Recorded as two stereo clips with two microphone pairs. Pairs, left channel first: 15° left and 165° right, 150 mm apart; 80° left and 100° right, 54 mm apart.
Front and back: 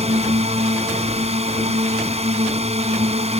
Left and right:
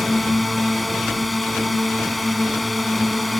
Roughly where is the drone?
Behind.